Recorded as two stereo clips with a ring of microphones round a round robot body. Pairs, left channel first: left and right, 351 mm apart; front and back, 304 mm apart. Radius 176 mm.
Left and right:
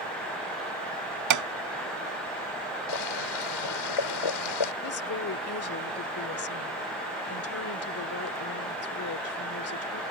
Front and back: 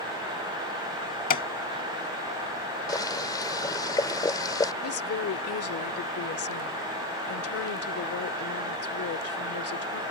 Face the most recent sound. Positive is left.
turn(degrees=40)